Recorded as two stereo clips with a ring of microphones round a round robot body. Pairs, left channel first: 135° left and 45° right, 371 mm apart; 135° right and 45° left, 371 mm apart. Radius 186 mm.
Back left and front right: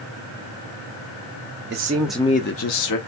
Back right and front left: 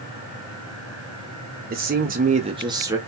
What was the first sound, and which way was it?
A man speaking, 5° right.